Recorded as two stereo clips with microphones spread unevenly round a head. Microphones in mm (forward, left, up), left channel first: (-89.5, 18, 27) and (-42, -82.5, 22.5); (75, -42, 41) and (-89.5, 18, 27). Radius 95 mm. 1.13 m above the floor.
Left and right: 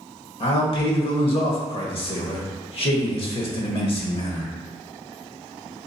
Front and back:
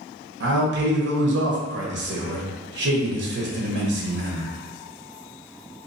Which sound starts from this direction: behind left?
A man speaking, at 0.4 s.